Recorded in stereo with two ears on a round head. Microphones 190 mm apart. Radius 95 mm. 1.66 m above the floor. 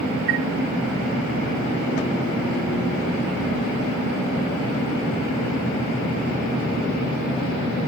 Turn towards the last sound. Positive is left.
turn(degrees=-65)  # may be behind; listen again after turning